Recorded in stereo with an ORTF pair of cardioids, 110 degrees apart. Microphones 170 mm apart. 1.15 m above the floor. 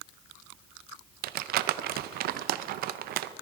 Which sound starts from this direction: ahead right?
Crumpling, at 1.2 s.